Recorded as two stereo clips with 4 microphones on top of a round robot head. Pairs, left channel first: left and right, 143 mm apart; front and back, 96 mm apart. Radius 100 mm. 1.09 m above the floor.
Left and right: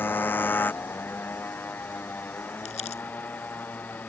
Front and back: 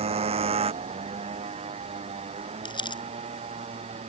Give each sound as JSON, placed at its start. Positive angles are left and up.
{"t": 0.0, "sound": "a motorcycle", "azimuth_deg": 165}
{"t": 2.6, "sound": "crumpling", "azimuth_deg": 35}